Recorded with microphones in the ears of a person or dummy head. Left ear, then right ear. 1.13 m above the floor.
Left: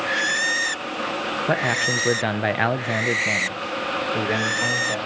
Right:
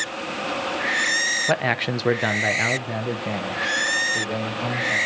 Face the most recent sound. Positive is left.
turn(degrees=75)  # may be behind; listen again after turning